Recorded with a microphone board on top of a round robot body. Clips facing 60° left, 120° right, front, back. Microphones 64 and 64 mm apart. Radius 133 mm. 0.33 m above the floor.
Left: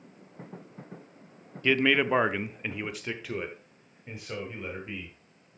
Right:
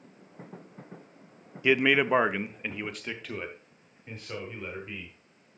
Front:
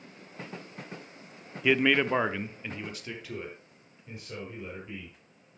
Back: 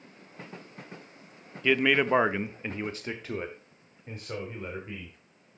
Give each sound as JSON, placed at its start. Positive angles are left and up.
{"t": 1.6, "sound": "a man speaking", "azimuth_deg": -65, "distance_m": 0.8}